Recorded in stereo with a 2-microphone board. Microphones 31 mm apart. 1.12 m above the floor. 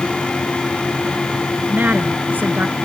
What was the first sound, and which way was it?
A woman speaking, 70° right (ahead or behind).